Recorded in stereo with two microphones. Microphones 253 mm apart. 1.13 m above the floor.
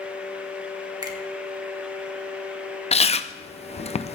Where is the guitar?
No guitar in this recording.